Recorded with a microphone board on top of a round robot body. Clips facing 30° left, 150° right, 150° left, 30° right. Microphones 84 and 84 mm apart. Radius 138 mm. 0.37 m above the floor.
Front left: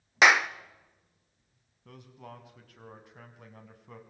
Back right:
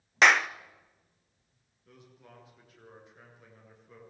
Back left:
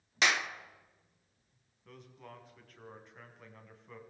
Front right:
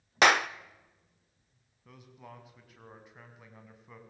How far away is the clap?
About 1.0 m.